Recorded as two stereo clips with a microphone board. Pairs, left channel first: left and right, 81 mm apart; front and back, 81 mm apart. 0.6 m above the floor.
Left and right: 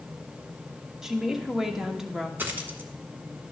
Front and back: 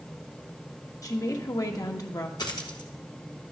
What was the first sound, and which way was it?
A woman speaking, 10° right.